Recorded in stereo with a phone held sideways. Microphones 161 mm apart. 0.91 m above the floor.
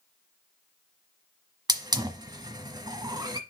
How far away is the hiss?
About 1.0 m.